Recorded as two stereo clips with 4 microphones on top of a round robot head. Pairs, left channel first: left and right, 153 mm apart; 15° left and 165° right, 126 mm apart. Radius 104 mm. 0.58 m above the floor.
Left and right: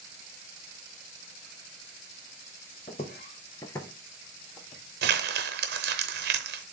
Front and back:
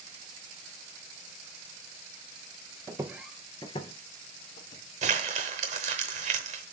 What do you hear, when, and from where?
2.9 s footsteps: 140° left, 0.7 m; by 4.8 s 5° right, 1.3 m
5.0 s crumpling: 120° right, 0.8 m